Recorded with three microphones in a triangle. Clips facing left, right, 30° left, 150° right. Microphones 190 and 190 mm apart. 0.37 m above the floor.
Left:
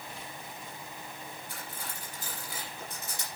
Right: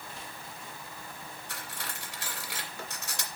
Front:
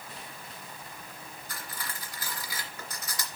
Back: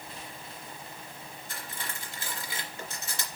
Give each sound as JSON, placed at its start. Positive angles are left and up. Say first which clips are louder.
{"t": 1.5, "sound": "cutlery clinking", "louder": "even, even", "azimuth_deg": -90, "distance_m": 2.5}